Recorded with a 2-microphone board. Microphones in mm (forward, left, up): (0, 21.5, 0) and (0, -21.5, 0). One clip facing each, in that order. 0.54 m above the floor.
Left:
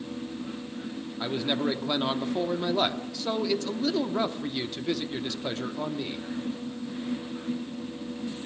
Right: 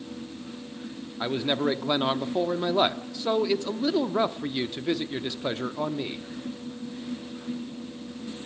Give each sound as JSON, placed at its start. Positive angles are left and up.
{"t": 1.2, "sound": "a man speaking", "side_deg": -15, "distance_m": 0.9}